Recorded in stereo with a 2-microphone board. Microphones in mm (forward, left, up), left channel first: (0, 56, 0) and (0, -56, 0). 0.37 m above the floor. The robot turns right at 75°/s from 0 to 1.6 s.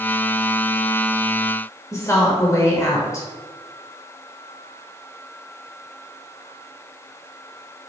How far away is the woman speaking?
About 0.9 m.